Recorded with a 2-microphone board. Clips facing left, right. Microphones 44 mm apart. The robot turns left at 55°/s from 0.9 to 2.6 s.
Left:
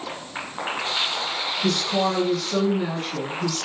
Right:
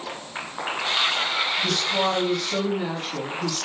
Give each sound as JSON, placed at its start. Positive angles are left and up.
{"t": 1.6, "sound": "a woman speaking", "azimuth_deg": 30, "distance_m": 5.0}